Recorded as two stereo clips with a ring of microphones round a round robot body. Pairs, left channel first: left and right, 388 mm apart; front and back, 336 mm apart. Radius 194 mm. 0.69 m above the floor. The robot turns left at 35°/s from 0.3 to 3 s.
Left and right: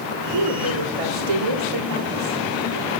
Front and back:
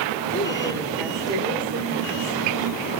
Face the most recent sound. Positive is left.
turn(degrees=-160)